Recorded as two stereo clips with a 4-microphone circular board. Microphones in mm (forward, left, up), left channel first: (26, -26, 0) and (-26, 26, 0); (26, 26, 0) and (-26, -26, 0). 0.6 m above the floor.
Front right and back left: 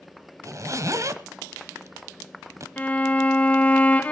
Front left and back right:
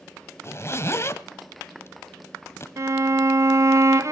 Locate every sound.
0.4 s a zipper: 95° left, 0.9 m
2.8 s a violin: 110° right, 0.6 m